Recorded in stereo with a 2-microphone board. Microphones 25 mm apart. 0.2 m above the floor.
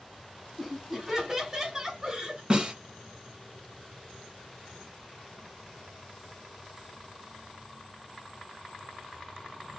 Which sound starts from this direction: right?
A snare drum, at 2.5 s.